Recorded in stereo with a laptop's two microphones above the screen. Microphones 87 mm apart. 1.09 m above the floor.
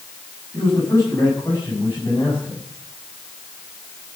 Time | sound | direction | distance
0.5 | a man speaking | 30° left (ahead or behind) | 9 m